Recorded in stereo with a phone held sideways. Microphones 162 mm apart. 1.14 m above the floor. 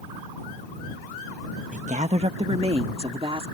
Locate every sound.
1.7 s a woman speaking: 50° right (ahead or behind); by 3.5 s 35° right (ahead or behind)